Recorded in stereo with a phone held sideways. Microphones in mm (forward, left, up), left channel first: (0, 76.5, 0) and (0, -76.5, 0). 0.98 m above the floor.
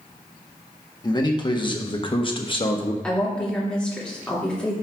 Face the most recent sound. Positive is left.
turn(degrees=5)  # may be behind; listen again after turning